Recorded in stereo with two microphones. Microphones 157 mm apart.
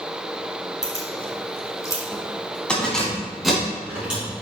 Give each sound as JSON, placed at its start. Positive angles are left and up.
{"t": 0.8, "sound": "keys jangling", "side_deg": 50, "distance_m": 2.0}